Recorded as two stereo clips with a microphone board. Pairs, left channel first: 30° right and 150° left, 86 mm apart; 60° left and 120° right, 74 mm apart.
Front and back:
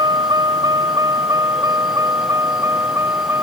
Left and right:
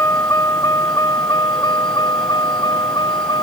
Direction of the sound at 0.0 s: 115° left.